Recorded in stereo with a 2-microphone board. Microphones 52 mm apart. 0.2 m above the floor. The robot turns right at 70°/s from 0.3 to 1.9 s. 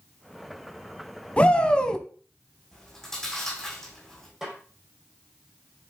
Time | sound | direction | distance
1.4 | a shout | 25° left (ahead or behind) | 1.0 m
2.7 | chewing | 10° left (ahead or behind) | 7 m
4.4 | a snare drum | 5° right (ahead or behind) | 7.5 m